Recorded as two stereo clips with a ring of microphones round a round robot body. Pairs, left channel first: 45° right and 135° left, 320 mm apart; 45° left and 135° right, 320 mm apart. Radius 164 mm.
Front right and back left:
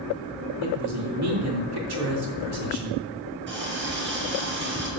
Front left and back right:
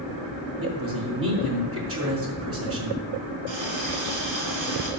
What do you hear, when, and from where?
0.6 s a man speaking: 175° left, 5 m
3.5 s a running tap: 170° right, 4.5 m